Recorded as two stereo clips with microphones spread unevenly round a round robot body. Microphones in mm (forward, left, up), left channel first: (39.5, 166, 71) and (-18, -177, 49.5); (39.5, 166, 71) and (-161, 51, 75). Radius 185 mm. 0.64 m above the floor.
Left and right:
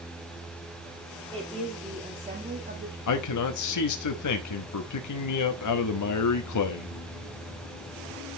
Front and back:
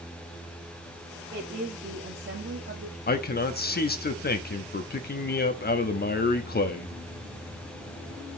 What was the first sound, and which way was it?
A woman speaking, 165° left.